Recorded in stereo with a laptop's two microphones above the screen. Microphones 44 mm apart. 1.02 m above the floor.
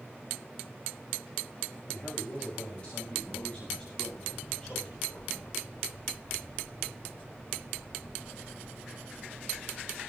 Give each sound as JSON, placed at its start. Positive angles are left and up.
{"t": 1.9, "sound": "a man speaking", "side_deg": 25, "distance_m": 7.5}